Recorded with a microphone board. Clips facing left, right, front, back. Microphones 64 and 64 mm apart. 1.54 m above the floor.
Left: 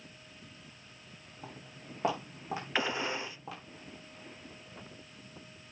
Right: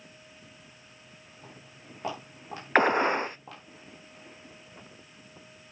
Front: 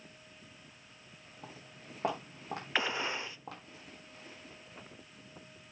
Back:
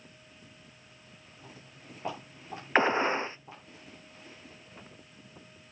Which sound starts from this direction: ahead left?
Footsteps, at 1.4 s.